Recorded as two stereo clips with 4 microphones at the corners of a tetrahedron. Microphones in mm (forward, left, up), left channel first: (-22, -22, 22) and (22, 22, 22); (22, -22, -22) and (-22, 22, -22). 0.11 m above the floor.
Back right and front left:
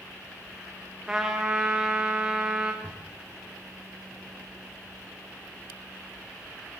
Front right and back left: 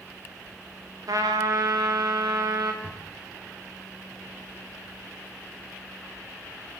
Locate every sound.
1.1 s a trumpet: 125° left, 4 m
2.8 s a drawer: 160° left, 5.5 m